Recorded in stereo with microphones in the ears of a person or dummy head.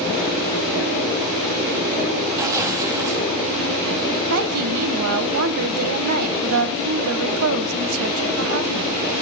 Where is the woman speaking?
85° right, 1.2 m.